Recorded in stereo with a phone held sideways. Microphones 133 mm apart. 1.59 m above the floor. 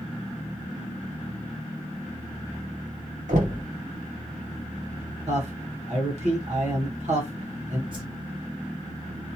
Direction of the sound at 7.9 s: 35° right (ahead or behind).